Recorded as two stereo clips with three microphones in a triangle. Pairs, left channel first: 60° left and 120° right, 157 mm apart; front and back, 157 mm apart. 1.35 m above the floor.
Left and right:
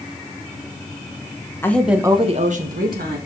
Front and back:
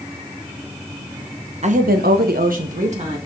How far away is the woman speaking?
About 1.1 m.